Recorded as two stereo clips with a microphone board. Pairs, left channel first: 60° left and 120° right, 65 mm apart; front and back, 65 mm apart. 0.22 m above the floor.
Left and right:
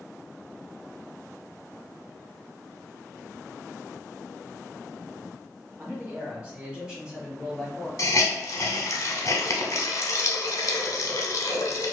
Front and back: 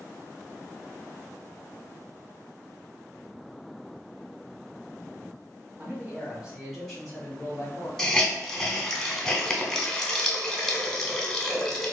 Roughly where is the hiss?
Left.